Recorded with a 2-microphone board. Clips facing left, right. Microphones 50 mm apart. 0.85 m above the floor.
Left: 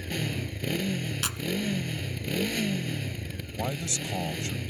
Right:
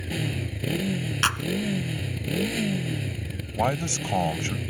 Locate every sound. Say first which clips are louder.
0.0 s a motorcycle: right 2 dB; 5° right (ahead or behind)
1.2 s a clap: right 9 dB; 55° right (ahead or behind)
3.5 s a man speaking: right 7 dB; 55° right (ahead or behind)